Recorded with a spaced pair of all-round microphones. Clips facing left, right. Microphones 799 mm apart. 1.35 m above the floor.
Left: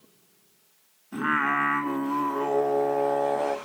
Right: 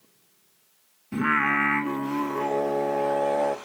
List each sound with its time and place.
1.1 s singing: 55° right (ahead or behind), 1.2 m